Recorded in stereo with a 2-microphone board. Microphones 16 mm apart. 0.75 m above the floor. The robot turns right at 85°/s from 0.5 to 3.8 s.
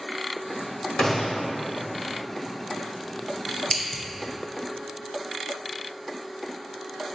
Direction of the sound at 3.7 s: 15° left (ahead or behind).